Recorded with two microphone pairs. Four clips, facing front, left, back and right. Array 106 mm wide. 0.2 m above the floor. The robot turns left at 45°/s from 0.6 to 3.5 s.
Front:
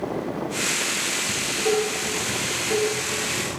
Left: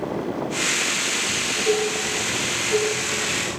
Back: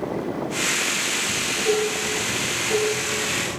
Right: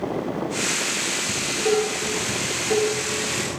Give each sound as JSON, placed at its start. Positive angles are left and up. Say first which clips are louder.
{"t": 1.3, "sound": "dishes clattering", "louder": "right 1 dB, even", "azimuth_deg": -35, "distance_m": 1.4}